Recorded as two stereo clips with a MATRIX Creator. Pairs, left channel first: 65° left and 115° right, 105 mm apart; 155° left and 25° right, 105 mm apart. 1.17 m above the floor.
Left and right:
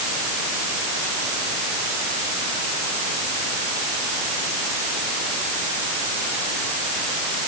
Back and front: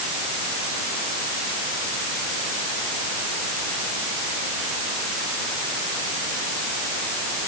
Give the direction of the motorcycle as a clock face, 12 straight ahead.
No motorcycle in this recording.